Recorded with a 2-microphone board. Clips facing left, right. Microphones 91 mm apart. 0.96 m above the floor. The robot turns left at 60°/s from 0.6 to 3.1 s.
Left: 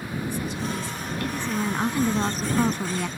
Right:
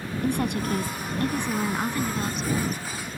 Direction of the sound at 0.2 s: 115° right.